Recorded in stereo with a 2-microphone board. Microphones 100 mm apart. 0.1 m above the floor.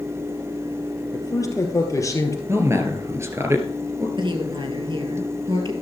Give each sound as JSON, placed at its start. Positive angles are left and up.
{"t": 1.1, "sound": "a man speaking", "side_deg": 35, "distance_m": 2.5}
{"t": 2.5, "sound": "a man speaking", "side_deg": -30, "distance_m": 1.8}
{"t": 4.2, "sound": "a woman speaking", "side_deg": -55, "distance_m": 2.5}